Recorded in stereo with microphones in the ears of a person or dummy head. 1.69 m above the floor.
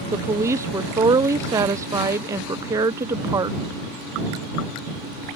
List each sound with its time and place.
0.1 s a woman speaking: 15° right (ahead or behind)